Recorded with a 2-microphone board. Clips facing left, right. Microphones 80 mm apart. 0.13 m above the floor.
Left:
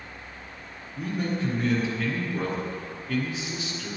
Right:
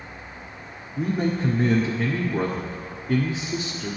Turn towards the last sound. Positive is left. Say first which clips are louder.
# right 5 dB
turn(degrees=-30)  # may be behind; listen again after turning